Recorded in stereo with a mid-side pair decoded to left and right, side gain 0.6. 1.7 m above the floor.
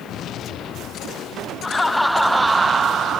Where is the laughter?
15° left; by 3.2 s 50° right.